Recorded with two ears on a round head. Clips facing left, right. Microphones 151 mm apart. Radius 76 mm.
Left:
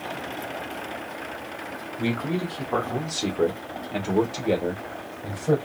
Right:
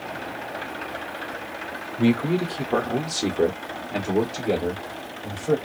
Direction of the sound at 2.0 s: 30° right (ahead or behind).